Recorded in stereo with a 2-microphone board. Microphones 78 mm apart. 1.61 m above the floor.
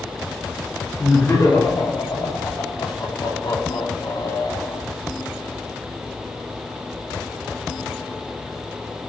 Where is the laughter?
40° left (ahead or behind), 2 m; by 4.8 s 65° left (ahead or behind), 3 m.